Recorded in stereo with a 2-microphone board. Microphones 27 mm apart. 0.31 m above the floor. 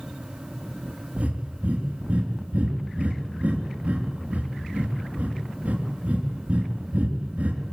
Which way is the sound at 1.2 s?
55° right (ahead or behind).